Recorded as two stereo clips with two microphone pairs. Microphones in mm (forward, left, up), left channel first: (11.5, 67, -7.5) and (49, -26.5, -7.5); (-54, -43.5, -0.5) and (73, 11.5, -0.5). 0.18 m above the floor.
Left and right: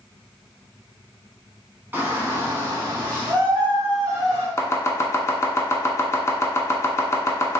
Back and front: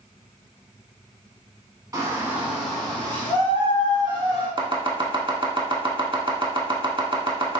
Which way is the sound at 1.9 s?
20° right.